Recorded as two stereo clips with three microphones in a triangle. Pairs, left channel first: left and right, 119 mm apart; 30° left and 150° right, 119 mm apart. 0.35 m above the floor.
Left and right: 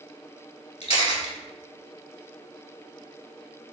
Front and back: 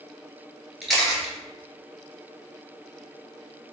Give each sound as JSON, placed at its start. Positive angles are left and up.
{"t": 0.8, "sound": "a camera shutter", "azimuth_deg": 120, "distance_m": 1.0}